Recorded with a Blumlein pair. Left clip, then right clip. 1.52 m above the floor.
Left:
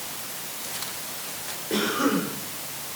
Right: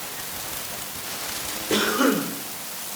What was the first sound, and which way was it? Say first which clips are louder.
A cough: right 3 dB; 20° right.